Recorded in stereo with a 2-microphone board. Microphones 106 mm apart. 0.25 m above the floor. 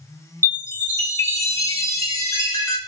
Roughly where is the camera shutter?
No camera shutter in this recording.